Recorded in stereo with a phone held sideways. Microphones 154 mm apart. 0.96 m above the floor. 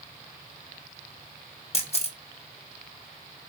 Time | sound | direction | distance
1.7 | a camera shutter | 40° left (ahead or behind) | 0.7 m